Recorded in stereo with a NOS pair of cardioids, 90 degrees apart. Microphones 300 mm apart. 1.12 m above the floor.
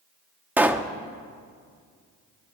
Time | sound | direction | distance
0.6 | a pop | 5° right | 1.1 m